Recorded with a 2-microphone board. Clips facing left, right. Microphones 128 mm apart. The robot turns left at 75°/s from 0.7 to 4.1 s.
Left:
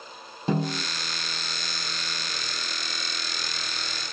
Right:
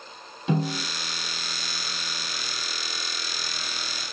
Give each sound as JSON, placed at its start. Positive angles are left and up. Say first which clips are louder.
{"t": 0.5, "sound": "a snare drum", "louder": "even", "side_deg": 40, "distance_m": 4.0}